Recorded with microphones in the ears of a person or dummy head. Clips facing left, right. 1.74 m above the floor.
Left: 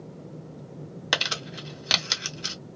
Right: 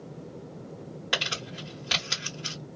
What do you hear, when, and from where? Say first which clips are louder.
1.1 s crumpling: left 3 dB; 70° left (ahead or behind), 1.3 m